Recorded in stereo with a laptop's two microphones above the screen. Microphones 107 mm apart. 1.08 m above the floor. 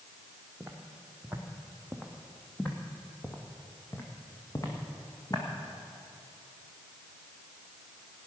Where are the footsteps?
20° right (ahead or behind), 2.5 m; by 5.4 s 40° left (ahead or behind), 3 m.